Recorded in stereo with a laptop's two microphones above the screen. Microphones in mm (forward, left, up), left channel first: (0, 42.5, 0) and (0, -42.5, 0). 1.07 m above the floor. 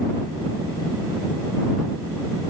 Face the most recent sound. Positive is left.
No sound to turn to.